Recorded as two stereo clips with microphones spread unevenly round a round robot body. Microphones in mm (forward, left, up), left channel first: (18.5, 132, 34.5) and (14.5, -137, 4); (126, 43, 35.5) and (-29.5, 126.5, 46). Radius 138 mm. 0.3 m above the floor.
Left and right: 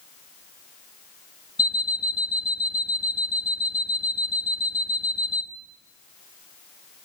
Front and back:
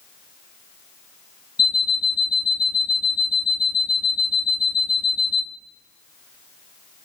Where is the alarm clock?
5° right, 2 m.